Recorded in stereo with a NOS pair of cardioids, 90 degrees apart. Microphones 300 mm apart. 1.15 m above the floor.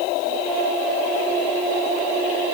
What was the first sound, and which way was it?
Only background noise.